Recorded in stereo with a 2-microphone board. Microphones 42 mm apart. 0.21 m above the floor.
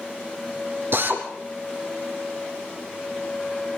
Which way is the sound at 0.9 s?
60° right (ahead or behind).